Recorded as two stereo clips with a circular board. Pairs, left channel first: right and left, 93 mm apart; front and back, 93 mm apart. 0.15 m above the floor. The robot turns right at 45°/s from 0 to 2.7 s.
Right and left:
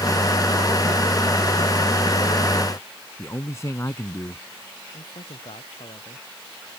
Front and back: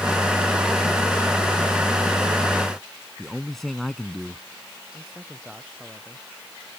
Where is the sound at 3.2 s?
85° right.